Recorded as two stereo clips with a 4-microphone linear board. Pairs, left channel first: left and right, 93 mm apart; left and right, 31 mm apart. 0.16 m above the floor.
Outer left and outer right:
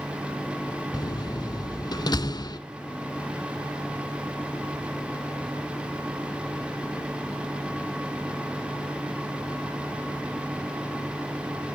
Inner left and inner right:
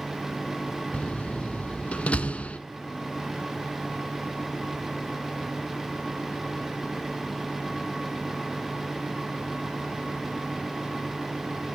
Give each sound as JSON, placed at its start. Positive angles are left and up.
{"t": 0.9, "sound": "a door slam", "side_deg": 45, "distance_m": 0.9}